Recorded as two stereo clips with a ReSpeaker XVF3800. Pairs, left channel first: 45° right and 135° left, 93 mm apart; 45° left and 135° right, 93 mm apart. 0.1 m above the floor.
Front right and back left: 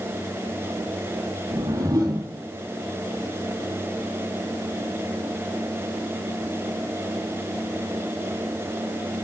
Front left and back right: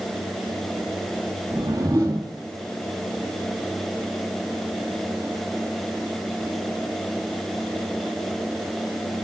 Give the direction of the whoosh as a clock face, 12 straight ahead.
6 o'clock.